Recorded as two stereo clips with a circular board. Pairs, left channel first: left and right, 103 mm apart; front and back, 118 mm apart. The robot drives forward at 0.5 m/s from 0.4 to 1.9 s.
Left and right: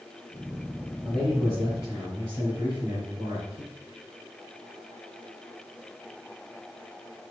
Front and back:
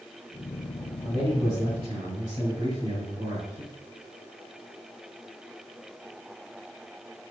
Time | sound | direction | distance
1.0 | a man speaking | 150° right | 3 m